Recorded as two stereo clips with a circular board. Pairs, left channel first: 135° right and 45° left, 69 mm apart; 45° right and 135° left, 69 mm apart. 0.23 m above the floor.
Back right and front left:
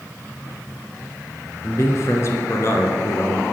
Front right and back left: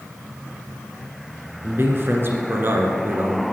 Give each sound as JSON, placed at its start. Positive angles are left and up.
{"t": 1.6, "sound": "a man speaking", "azimuth_deg": -175, "distance_m": 2.5}